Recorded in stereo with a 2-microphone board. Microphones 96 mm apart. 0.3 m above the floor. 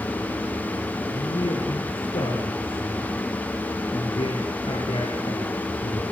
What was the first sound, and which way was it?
A man speaking, 75° left (ahead or behind).